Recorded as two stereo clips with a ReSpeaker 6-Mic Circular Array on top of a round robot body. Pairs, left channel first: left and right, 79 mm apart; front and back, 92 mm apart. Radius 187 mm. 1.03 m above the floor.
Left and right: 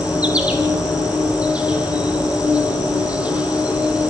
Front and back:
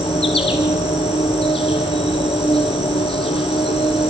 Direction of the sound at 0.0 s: 15° right.